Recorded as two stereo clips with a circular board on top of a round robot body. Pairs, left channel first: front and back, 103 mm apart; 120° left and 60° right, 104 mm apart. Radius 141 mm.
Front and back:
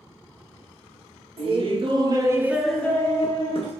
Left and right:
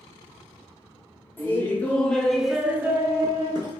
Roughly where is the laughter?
Behind.